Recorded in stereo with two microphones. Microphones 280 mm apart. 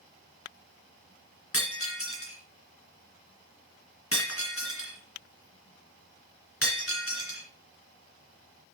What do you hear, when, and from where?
1.5 s breaking glass: 50° left (ahead or behind), 2.5 m